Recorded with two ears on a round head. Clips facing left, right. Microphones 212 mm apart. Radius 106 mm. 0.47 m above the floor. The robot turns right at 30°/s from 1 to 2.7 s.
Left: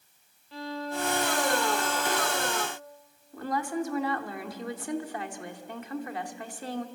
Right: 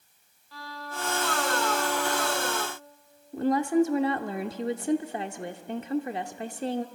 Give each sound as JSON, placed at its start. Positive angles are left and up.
{"t": 0.5, "sound": "a violin", "azimuth_deg": 160, "distance_m": 1.6}
{"t": 3.3, "sound": "a woman speaking", "side_deg": -20, "distance_m": 0.8}